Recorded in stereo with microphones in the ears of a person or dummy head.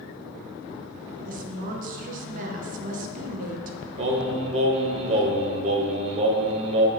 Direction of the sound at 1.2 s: 45° right (ahead or behind).